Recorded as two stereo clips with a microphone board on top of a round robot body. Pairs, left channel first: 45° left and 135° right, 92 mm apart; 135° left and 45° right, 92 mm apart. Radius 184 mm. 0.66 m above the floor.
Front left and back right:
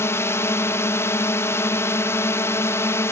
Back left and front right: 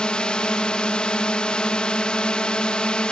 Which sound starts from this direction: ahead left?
A drone, at 0.0 s.